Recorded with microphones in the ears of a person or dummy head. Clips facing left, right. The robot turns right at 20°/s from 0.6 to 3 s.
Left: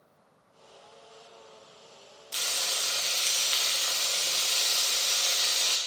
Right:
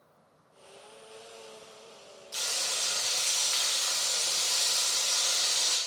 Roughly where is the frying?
Left.